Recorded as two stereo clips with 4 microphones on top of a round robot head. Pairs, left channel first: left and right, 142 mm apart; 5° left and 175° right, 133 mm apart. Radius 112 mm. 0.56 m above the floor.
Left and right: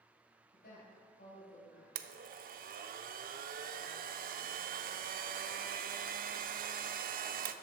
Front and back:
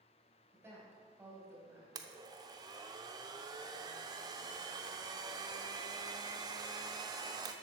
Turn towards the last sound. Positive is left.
turn(degrees=-110)